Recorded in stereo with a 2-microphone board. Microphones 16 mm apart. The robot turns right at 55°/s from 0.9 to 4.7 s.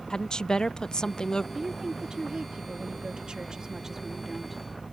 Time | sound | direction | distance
0.1 | a woman speaking | 85° left | ?
1.6 | a woman speaking | 155° right | ?